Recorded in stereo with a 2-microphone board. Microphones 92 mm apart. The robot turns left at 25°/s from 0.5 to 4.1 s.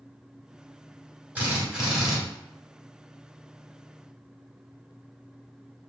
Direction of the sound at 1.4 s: 20° right (ahead or behind).